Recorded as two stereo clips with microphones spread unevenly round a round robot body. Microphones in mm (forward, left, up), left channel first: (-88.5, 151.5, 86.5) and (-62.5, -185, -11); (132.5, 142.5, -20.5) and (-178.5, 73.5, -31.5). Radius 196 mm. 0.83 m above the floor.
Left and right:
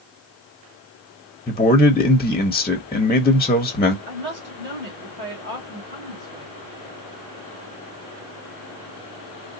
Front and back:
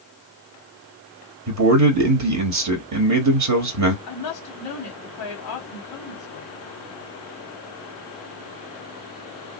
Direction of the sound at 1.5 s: Straight behind.